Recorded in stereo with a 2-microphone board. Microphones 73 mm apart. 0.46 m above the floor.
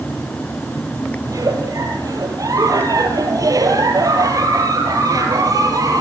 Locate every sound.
1.2 s a giggle: 55° right (ahead or behind), 4 m